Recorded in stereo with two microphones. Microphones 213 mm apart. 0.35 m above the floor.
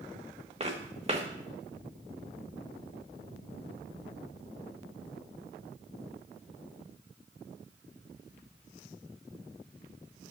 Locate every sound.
0.6 s footsteps: 30° right (ahead or behind), 1.4 m